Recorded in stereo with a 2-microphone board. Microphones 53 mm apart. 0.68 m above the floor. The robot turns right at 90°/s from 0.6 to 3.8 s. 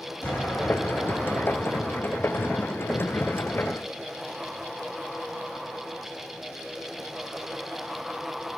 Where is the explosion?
145° left, 4.5 m; by 2.5 s 45° right, 4.5 m.